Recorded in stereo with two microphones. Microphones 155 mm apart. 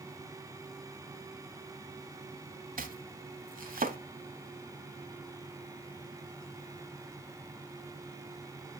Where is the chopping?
75° right (ahead or behind), 0.8 m.